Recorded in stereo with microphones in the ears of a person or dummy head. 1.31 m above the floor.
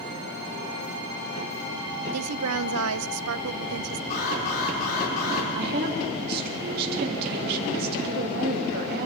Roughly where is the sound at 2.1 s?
Right.